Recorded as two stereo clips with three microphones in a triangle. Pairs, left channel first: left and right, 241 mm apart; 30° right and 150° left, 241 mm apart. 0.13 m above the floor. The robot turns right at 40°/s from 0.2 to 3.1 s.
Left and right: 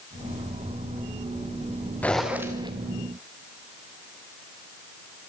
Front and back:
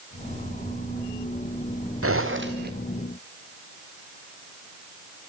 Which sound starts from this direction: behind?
A zipper, at 2.0 s.